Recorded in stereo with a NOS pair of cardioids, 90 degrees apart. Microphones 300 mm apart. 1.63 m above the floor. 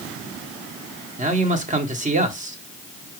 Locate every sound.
1.2 s a man speaking: 25° right, 1.2 m